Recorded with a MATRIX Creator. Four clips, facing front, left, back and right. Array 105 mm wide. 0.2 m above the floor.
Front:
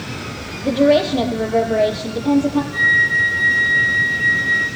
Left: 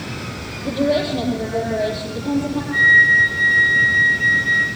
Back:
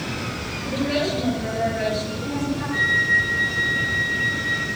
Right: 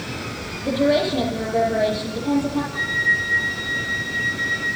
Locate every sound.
0.6 s a woman speaking: straight ahead, 6.5 m
2.7 s a flute: 105° left, 6 m